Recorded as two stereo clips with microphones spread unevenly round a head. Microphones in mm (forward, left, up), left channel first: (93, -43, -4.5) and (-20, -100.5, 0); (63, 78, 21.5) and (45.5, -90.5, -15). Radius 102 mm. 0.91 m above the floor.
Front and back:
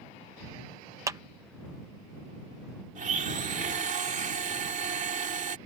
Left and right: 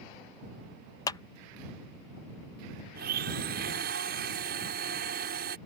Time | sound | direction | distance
1.1 | a clap | 160° left | ?
3.0 | a blender | 135° right | ?